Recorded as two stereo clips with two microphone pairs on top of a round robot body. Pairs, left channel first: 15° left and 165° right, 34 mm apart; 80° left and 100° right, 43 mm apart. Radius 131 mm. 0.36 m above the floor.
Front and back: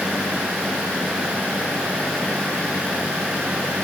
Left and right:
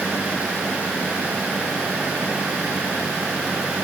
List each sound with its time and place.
Only background noise.